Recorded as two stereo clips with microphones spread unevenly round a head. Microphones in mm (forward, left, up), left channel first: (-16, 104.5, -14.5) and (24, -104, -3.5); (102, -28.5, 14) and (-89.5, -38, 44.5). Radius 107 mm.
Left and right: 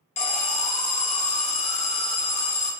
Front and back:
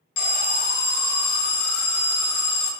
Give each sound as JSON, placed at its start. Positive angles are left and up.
{"t": 0.2, "sound": "an alarm", "azimuth_deg": 40, "distance_m": 0.6}